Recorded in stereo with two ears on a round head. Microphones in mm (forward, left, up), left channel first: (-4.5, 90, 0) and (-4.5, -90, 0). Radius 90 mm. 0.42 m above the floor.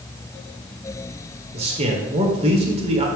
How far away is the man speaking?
About 1.5 m.